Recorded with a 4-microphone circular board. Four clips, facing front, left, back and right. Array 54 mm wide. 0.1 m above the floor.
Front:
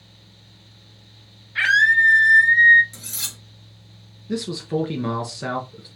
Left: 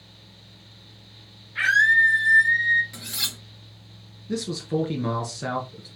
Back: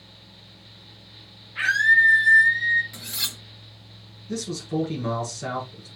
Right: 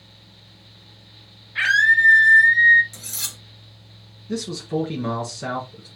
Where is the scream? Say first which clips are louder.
Right 1 dB, front 2 dB; 15° right, 3 m; by 2.8 s 10° right, 2 m.